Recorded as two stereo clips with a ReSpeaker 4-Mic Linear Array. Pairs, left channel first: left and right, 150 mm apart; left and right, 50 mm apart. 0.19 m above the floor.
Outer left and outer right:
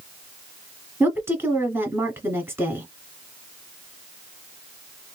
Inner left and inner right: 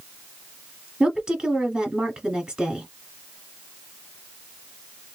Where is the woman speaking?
15° right (ahead or behind), 1.4 m.